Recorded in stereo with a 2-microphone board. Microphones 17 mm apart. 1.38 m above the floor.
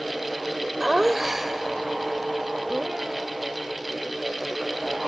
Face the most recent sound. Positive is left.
turn(degrees=-15)  # may be behind; listen again after turning